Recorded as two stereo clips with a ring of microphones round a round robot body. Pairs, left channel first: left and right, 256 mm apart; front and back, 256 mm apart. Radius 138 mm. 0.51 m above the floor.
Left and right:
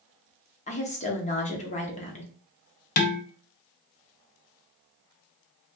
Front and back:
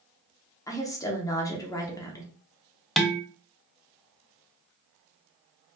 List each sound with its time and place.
0.7 s a woman speaking: 65° left, 0.8 m
3.0 s dishes clattering: 90° left, 0.5 m